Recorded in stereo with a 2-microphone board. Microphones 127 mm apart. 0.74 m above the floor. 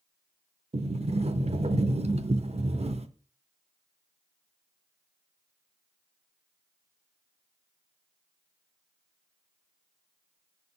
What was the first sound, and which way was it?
A sliding door, 55° right (ahead or behind).